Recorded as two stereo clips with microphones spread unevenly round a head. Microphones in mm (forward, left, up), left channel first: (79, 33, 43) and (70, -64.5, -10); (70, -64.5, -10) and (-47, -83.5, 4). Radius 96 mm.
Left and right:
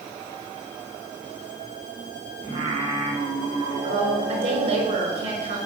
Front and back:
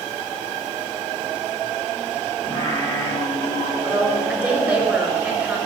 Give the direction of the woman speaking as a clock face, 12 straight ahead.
3 o'clock.